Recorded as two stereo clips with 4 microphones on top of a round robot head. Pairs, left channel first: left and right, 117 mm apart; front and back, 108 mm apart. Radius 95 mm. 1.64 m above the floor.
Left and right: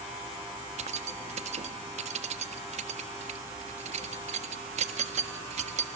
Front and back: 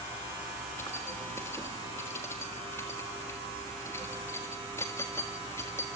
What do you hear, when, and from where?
0.8 s keys jangling: 75° right, 1.7 m